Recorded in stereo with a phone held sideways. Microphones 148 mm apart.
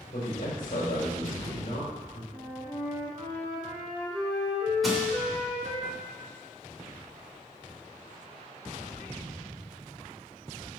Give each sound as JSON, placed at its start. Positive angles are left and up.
{"t": 0.1, "sound": "a man speaking", "side_deg": 65, "distance_m": 4.0}
{"t": 2.3, "sound": "a flute", "side_deg": 10, "distance_m": 4.0}
{"t": 4.8, "sound": "crushing", "side_deg": 0, "distance_m": 3.0}